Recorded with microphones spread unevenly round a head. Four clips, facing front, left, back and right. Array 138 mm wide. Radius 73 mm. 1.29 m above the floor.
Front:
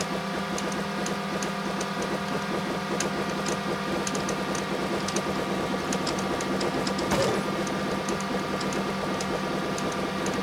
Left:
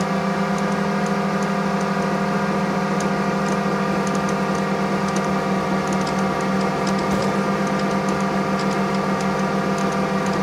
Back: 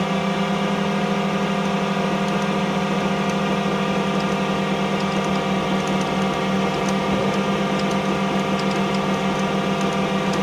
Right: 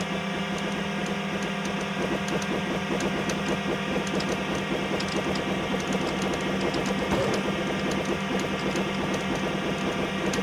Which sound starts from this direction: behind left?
A drone, at 0.0 s.